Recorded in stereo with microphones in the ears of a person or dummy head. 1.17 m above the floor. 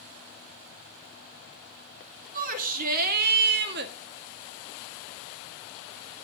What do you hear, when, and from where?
2.3 s a shout: 45° right (ahead or behind), 3.5 m; by 3.9 s 60° right (ahead or behind), 2.0 m